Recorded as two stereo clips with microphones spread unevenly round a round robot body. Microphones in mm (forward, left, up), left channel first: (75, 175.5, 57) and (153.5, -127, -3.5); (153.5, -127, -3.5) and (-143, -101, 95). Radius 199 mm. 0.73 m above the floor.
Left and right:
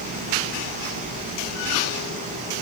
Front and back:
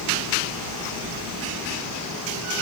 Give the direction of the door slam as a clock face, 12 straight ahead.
No door slam in this recording.